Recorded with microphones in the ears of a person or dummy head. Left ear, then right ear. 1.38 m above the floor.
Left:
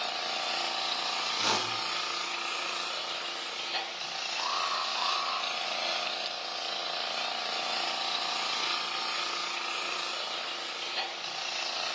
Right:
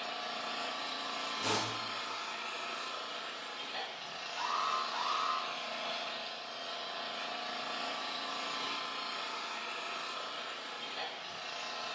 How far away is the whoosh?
About 0.9 m.